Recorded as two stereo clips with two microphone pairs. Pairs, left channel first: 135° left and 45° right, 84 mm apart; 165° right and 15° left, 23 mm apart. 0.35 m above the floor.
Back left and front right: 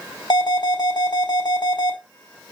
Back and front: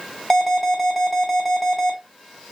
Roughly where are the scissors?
No scissors in this recording.